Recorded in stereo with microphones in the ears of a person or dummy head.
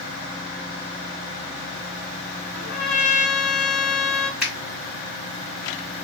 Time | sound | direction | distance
2.5 | a trumpet | 60° left (ahead or behind) | 1.2 m
4.4 | a finger snap | centre (ahead or behind) | 1.9 m